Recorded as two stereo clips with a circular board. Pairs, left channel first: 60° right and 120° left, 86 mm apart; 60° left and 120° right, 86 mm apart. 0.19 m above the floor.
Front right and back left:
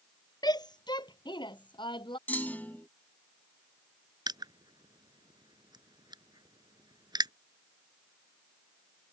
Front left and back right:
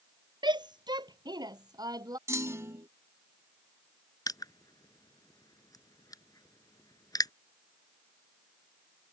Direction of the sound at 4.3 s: 95° left.